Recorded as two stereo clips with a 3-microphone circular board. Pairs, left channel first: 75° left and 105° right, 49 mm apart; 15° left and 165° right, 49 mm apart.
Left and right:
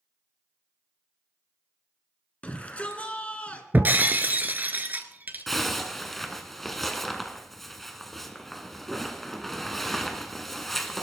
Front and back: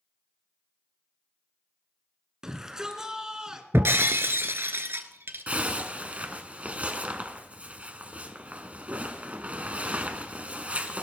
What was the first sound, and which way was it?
A shout, 125° left.